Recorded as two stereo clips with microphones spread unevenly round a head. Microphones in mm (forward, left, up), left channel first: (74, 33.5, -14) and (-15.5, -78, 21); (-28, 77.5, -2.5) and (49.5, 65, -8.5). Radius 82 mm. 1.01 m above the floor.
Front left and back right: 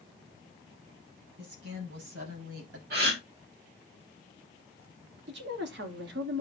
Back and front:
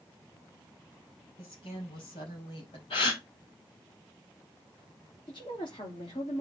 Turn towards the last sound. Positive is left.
turn(degrees=-130)